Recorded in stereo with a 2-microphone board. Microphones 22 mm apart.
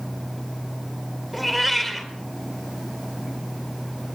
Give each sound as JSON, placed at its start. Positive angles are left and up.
{"t": 1.3, "sound": "a cat meowing", "side_deg": -5, "distance_m": 2.5}